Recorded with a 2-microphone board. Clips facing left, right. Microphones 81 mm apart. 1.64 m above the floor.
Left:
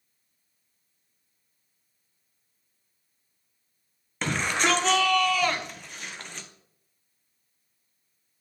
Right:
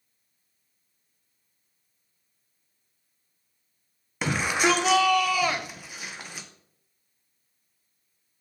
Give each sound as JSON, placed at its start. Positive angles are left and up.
{"t": 4.2, "sound": "a shout", "side_deg": -10, "distance_m": 1.2}